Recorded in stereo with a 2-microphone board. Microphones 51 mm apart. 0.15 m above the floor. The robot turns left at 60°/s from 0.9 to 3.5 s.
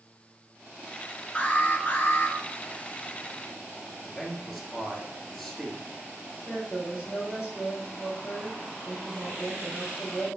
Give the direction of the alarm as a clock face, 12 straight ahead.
7 o'clock.